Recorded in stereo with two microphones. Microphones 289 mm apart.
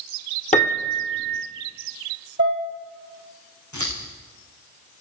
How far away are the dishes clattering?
About 5.5 m.